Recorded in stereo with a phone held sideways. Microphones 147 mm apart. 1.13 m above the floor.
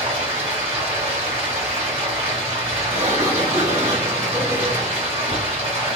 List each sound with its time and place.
0.0 s running water: 45° right (ahead or behind), 1.3 m
2.9 s a sliding door: 50° right (ahead or behind), 1.2 m